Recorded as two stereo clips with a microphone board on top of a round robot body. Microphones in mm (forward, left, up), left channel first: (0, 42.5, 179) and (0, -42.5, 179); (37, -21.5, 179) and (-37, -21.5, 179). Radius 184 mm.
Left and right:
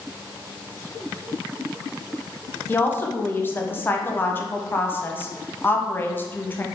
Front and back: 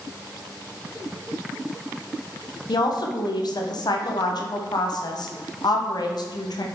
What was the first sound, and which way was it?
A woman speaking, 25° left.